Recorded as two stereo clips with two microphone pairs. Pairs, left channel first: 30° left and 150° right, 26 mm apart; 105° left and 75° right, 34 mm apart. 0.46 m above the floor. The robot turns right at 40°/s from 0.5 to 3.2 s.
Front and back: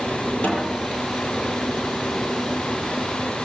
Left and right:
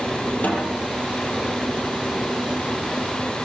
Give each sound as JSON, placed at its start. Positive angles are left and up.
{"t": 0.4, "sound": "a snare drum", "azimuth_deg": 70, "distance_m": 9.0}